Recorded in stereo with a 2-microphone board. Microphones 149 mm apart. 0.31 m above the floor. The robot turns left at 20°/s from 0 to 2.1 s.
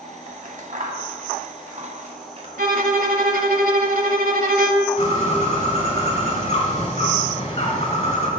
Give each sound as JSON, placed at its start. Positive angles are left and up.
{"t": 0.3, "sound": "scissors", "side_deg": -60, "distance_m": 1.6}
{"t": 2.6, "sound": "a violin", "side_deg": -70, "distance_m": 1.0}
{"t": 5.0, "sound": "a bird", "side_deg": 50, "distance_m": 3.0}